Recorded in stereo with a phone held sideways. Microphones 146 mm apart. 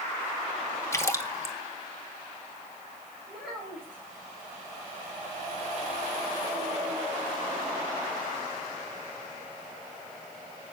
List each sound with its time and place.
0.9 s a splash: 20° left (ahead or behind), 1.7 m
3.3 s a child speaking: 5° right (ahead or behind), 7 m